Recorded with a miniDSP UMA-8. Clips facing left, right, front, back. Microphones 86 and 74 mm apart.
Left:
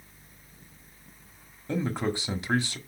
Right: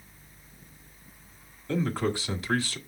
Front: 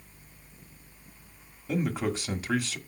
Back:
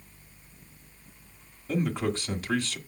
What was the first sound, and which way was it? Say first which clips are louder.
A man speaking: right 1 dB, back 1 dB; 70° left.